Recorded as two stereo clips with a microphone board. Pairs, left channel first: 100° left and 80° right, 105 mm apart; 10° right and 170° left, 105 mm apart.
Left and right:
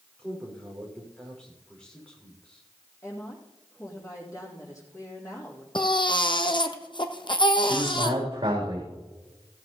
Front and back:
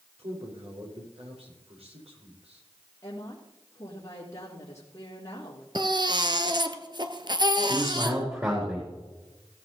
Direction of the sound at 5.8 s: 130° left.